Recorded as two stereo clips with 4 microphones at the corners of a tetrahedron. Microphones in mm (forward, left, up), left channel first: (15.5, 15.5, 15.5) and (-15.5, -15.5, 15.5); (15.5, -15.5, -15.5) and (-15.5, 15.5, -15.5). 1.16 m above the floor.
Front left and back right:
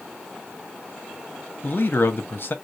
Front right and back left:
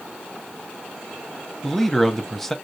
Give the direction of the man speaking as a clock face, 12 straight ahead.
11 o'clock.